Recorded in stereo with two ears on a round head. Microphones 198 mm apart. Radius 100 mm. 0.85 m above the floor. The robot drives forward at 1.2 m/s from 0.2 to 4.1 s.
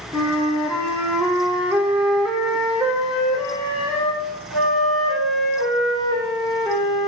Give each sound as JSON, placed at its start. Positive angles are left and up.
{"t": 0.1, "sound": "a flute", "side_deg": 0, "distance_m": 2.0}